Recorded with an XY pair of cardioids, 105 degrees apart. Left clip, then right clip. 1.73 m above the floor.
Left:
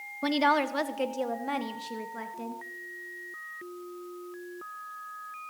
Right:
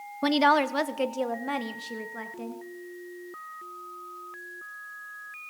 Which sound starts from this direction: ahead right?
A woman speaking, at 0.2 s.